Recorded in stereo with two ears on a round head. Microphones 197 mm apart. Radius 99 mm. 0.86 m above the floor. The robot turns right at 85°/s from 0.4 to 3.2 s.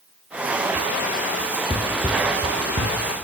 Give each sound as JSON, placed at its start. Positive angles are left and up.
{"t": 1.7, "sound": "running footsteps", "side_deg": 25, "distance_m": 0.9}